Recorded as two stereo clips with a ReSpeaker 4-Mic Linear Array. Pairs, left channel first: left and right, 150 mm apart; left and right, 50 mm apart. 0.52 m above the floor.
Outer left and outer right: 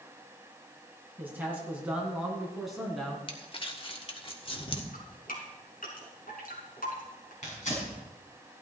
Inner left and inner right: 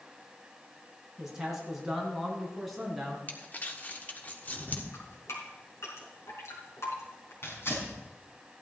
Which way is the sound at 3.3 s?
35° left (ahead or behind).